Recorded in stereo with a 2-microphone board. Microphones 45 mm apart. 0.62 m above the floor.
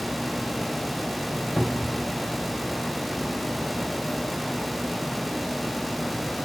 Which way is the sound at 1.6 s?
5° left (ahead or behind).